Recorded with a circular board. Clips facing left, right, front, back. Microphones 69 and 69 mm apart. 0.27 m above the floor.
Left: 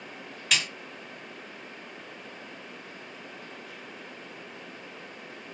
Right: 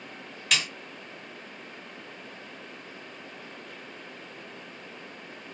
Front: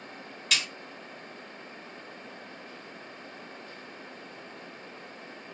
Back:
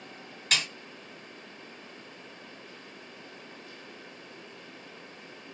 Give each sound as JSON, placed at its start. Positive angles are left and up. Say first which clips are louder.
{"t": 0.5, "sound": "a snare drum", "louder": "even, back 1 dB", "azimuth_deg": 180, "distance_m": 2.0}